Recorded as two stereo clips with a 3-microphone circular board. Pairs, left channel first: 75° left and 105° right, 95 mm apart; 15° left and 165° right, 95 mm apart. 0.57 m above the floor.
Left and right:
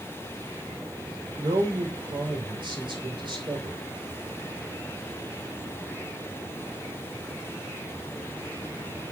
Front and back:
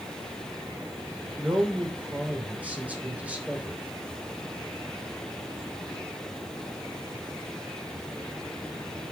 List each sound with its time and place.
1.4 s a man speaking: 95° right, 2.5 m